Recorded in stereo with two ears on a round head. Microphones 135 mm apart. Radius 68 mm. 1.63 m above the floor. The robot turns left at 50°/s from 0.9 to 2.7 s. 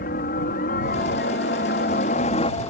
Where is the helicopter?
115° left; by 2.7 s 25° left.